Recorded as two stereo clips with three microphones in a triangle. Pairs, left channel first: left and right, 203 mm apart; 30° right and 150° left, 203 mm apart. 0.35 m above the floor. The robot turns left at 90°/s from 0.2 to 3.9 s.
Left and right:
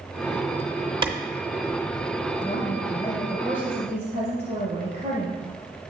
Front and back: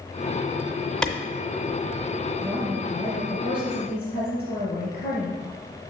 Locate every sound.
1.0 s a clap: 110° right, 0.6 m; by 1.1 s 120° right, 0.6 m
2.4 s a woman speaking: 80° left, 2.5 m; by 5.4 s 55° right, 2.5 m